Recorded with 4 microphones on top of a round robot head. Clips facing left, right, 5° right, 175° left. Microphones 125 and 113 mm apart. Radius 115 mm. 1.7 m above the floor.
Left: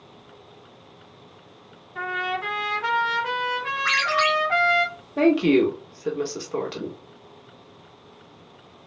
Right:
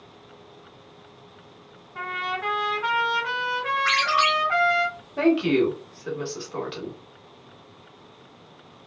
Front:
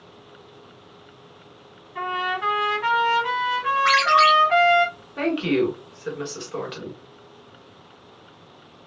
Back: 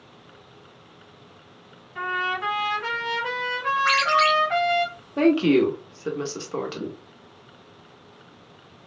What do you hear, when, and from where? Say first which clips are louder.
1.9 s a trumpet: left 2 dB, front 2 dB; 35° left, 1.5 m
3.9 s a ringtone: left 1 dB, front 4 dB; 30° right, 2 m
5.2 s a woman speaking: left 2 dB, back 4 dB; 125° left, 0.8 m